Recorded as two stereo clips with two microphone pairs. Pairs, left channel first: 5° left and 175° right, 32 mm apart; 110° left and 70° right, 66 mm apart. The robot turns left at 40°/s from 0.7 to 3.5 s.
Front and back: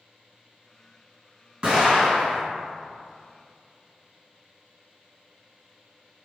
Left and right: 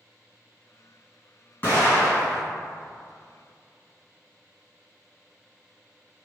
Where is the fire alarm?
No fire alarm in this recording.